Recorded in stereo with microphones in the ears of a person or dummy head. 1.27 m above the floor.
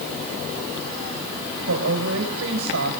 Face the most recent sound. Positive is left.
turn(degrees=-80)